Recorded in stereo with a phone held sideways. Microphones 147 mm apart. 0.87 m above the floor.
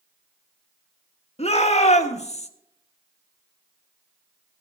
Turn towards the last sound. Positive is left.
turn(degrees=45)  # may be behind; listen again after turning